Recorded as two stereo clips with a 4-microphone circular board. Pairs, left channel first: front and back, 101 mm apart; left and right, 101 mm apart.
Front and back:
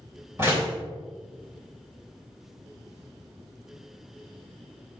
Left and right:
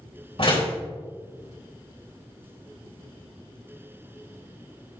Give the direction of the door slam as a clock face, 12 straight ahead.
8 o'clock.